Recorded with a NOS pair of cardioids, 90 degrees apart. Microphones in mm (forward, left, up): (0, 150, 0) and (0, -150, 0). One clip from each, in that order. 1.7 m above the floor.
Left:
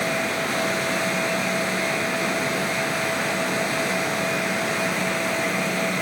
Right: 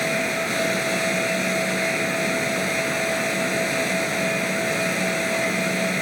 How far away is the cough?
No cough in this recording.